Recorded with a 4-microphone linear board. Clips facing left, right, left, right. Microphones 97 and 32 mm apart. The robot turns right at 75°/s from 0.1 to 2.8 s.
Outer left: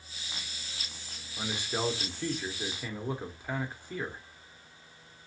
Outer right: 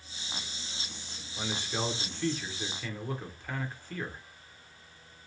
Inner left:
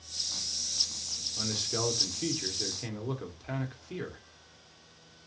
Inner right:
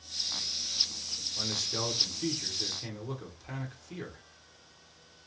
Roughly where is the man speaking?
Centre.